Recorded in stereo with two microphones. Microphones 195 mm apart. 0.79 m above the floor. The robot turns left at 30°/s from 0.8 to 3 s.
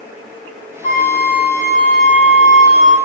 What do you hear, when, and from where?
0.8 s a flute: 30° left, 0.9 m; by 3.0 s 30° right, 0.9 m